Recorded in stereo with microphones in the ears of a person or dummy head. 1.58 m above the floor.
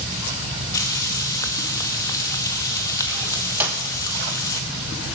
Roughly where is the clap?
Centre.